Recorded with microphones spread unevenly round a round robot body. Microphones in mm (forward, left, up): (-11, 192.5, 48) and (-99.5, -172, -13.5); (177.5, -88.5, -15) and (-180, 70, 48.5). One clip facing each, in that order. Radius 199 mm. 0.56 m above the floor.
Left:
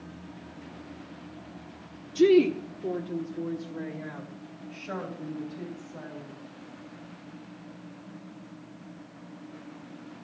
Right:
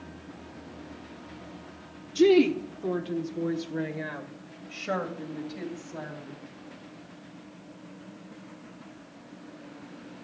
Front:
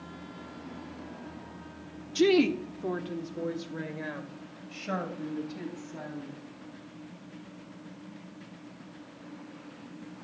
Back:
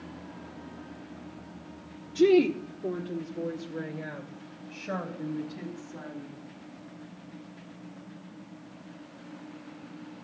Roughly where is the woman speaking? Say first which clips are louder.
Even, back 2 dB; ahead right.